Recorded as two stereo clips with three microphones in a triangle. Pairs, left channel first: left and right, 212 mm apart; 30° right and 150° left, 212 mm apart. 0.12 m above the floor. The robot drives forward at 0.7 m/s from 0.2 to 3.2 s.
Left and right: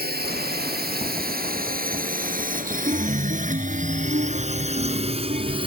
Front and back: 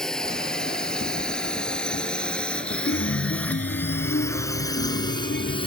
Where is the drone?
115° right; by 5.7 s 60° right.